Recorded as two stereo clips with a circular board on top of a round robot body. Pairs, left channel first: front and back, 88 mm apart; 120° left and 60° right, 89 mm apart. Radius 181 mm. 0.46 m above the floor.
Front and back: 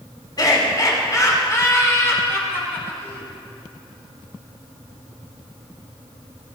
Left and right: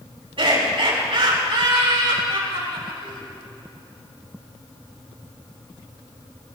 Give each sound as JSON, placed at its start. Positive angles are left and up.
{"t": 0.4, "sound": "laughter", "azimuth_deg": -40, "distance_m": 5.5}